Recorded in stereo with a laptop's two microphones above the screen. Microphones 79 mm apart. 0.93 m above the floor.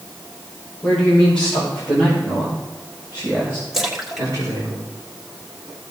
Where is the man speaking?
10° left (ahead or behind), 5 m; by 4.7 s 55° right (ahead or behind), 4.5 m.